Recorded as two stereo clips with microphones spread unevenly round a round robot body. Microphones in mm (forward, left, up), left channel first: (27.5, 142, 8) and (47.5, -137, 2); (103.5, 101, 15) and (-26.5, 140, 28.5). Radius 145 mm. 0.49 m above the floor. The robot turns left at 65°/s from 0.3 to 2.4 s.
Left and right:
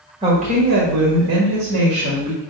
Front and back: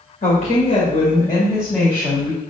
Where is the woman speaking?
20° right, 1.8 m; by 2.4 s 155° right, 1.8 m.